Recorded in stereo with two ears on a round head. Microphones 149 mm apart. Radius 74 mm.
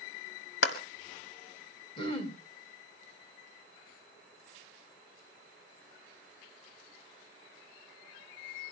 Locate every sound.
0.6 s a clap: 75° left (ahead or behind), 2 m
2.0 s throat clearing: 35° left (ahead or behind), 3.5 m